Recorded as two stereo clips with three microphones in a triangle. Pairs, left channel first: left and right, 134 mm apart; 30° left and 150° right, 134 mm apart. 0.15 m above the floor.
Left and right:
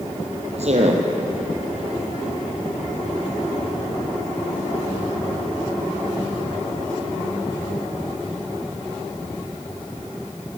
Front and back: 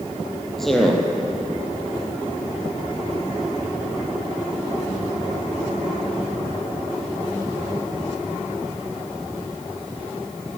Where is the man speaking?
60° right, 5 m.